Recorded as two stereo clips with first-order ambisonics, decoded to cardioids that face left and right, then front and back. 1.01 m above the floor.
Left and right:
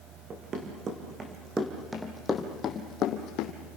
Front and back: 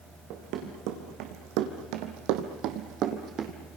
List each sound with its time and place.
0.3 s running footsteps: 150° right, 4 m; by 3.5 s 120° left, 2.5 m